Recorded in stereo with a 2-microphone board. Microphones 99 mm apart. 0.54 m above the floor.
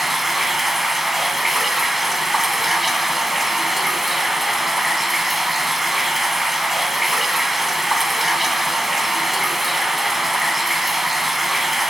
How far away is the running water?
About 0.9 m.